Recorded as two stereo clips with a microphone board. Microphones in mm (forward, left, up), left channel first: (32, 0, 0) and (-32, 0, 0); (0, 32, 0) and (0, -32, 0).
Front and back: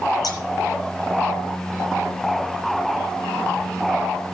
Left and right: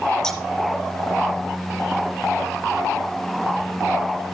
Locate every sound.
0.2 s scissors: 10° left, 7.5 m